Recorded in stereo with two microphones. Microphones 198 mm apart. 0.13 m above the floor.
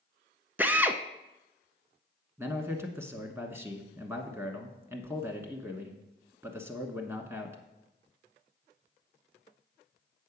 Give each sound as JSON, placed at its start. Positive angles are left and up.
{"t": 0.6, "sound": "a drill", "side_deg": -10, "distance_m": 0.5}
{"t": 2.4, "sound": "a man speaking", "side_deg": -10, "distance_m": 1.1}